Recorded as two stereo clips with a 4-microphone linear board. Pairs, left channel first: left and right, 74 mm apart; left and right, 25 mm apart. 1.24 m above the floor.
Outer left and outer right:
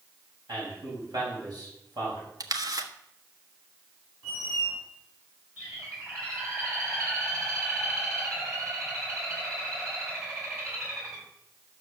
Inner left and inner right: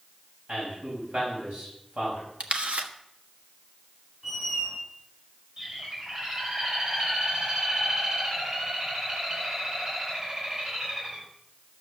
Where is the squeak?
55° right (ahead or behind), 7.5 m.